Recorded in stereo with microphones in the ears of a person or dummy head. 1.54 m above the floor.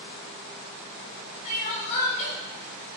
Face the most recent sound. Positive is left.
turn(degrees=35)  # may be behind; listen again after turning